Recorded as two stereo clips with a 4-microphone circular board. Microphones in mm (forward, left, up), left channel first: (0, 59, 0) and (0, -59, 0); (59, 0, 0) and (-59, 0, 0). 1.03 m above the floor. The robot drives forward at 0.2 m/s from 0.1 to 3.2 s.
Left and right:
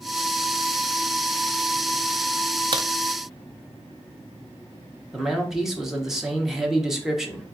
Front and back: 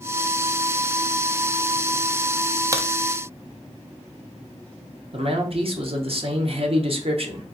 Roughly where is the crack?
Behind right.